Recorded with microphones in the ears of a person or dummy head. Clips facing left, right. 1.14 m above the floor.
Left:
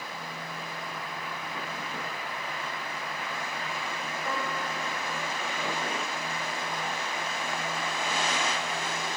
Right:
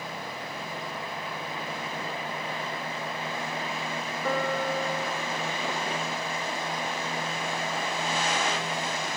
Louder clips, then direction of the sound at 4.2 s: Right 7 dB; 65° right (ahead or behind).